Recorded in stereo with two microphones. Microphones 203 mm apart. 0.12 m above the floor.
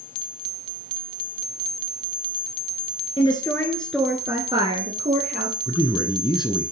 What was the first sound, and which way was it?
A woman speaking, 25° left (ahead or behind).